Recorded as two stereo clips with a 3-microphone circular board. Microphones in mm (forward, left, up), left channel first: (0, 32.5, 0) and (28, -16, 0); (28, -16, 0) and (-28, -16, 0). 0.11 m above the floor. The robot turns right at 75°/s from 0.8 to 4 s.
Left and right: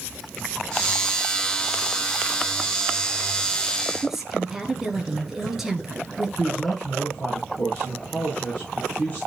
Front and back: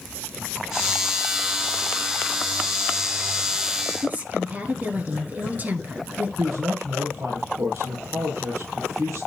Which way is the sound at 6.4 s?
Straight behind.